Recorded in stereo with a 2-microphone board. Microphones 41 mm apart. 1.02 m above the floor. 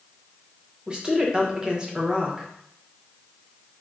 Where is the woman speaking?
20° right (ahead or behind), 1.0 m.